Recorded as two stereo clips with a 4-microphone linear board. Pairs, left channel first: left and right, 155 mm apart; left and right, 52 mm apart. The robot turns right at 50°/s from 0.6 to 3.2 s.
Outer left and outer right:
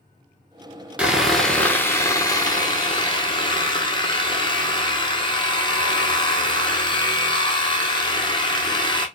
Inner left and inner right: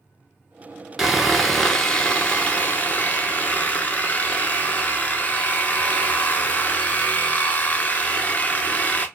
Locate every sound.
1.0 s sawing: 15° right, 0.6 m; by 9.1 s 95° left, 0.6 m